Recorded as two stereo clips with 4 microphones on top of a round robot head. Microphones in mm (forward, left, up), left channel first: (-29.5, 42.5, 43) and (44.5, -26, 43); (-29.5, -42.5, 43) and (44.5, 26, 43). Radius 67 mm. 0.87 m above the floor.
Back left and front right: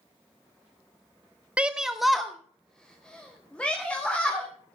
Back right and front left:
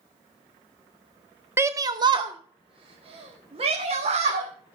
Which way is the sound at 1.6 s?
20° left.